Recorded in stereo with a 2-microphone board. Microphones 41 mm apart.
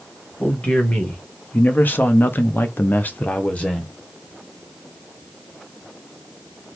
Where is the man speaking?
35° left (ahead or behind), 1.8 m; by 3.9 s 20° left (ahead or behind), 1.0 m.